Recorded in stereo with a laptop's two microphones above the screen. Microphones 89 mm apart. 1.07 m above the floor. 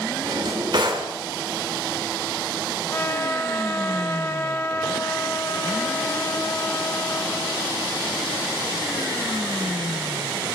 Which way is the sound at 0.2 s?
55° right (ahead or behind).